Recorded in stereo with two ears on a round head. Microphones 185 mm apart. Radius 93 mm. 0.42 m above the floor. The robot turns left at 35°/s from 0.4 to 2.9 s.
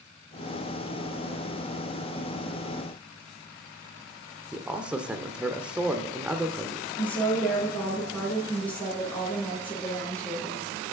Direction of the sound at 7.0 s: 10° left (ahead or behind).